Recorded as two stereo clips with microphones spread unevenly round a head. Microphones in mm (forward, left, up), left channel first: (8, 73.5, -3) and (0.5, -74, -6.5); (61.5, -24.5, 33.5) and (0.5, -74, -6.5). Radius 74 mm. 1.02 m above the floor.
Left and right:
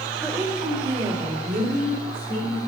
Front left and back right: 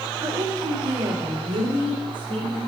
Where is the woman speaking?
Straight behind, 1.3 m; by 2.6 s 125° right, 3 m.